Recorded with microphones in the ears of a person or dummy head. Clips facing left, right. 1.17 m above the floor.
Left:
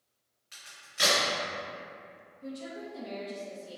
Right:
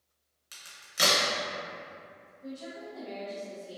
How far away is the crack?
About 0.9 m.